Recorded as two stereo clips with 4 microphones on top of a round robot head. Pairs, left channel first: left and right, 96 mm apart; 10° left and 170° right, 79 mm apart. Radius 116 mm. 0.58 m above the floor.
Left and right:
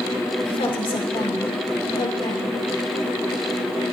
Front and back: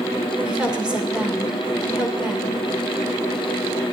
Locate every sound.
0.5 s a woman speaking: 110° left, 3 m